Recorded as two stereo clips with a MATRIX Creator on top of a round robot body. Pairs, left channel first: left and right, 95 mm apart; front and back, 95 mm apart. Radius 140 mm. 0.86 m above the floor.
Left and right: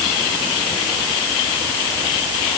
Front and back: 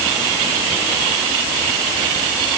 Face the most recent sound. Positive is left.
No sound to turn to.